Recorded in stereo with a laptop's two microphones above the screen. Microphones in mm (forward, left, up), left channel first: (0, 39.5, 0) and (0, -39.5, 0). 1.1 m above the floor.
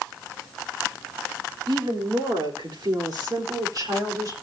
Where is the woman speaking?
80° right, 3.5 m; by 4.3 s 45° right (ahead or behind), 4 m.